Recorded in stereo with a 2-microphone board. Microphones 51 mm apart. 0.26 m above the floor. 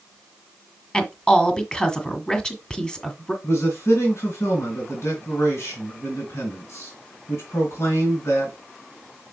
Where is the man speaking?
60° left (ahead or behind), 2.5 m.